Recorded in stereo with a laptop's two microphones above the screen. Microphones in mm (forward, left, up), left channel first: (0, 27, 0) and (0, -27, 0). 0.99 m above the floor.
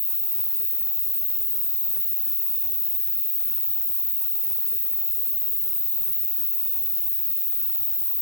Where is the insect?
70° right (ahead or behind), 1.0 m.